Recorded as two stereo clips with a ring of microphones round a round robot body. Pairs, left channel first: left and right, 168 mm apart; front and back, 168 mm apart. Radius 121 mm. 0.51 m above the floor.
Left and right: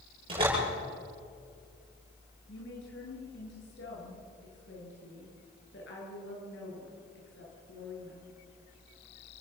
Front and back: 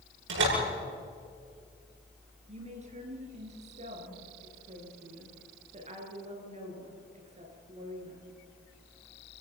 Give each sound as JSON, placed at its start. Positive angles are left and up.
{"t": 0.3, "sound": "a door slam", "azimuth_deg": -160, "distance_m": 9.5}
{"t": 2.5, "sound": "a woman speaking", "azimuth_deg": 130, "distance_m": 7.5}